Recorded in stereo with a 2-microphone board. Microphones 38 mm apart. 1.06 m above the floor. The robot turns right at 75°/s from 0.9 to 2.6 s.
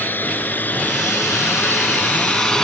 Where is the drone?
55° left (ahead or behind); by 2.6 s 20° left (ahead or behind).